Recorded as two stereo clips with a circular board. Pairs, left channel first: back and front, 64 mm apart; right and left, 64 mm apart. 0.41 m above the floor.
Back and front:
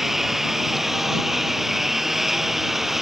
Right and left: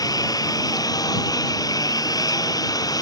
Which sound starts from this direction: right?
A lawn mower, at 0.0 s.